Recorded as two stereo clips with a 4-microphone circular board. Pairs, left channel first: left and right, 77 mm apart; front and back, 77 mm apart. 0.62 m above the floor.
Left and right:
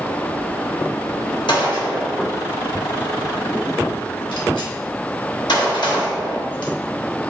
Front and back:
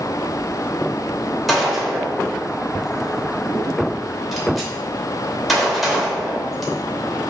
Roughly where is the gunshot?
Left.